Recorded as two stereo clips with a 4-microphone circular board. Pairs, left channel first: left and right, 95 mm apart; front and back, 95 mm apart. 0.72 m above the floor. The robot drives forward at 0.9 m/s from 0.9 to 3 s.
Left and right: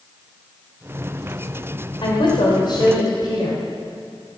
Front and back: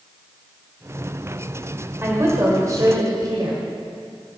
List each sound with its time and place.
2.0 s a woman speaking: 115° left, 2.5 m; by 3.6 s 130° left, 3 m